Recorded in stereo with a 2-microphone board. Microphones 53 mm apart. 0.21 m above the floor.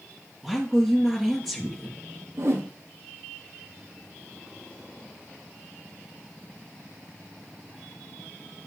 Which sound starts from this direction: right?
A whoosh, at 2.4 s.